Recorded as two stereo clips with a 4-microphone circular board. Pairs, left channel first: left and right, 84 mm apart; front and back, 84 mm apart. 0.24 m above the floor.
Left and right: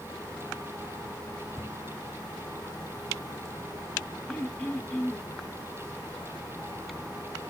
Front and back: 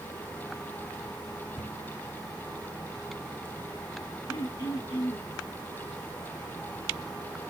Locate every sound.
1.6 s a cupboard door: 115° right, 1.5 m
4.3 s throat clearing: 25° left, 2.5 m